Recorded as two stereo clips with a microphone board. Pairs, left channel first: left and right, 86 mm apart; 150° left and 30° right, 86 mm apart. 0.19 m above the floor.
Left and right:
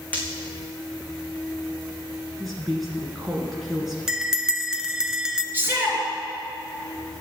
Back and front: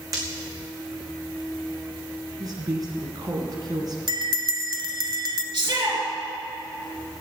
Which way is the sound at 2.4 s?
Straight ahead.